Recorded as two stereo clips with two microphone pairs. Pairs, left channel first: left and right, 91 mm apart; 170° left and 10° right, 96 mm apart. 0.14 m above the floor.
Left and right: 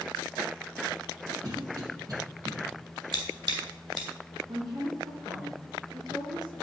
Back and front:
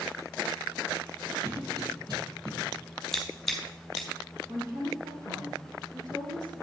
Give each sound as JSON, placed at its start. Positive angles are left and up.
{"t": 1.4, "sound": "a cough", "azimuth_deg": -45, "distance_m": 4.5}
{"t": 3.1, "sound": "scissors", "azimuth_deg": -105, "distance_m": 2.5}
{"t": 4.5, "sound": "a woman speaking", "azimuth_deg": -55, "distance_m": 4.0}